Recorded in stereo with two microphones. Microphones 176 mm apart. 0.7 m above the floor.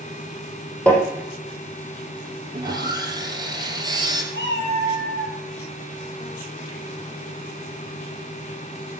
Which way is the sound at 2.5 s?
20° right (ahead or behind).